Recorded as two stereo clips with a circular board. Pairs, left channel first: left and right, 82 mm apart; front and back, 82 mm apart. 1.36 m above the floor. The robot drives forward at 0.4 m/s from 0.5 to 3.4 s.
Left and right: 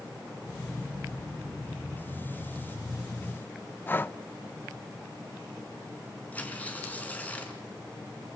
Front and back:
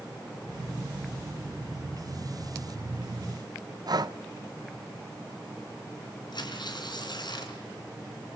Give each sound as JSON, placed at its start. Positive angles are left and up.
{"t": 3.9, "sound": "breathing", "azimuth_deg": 155, "distance_m": 0.7}
{"t": 6.3, "sound": "tearing paper", "azimuth_deg": 20, "distance_m": 3.0}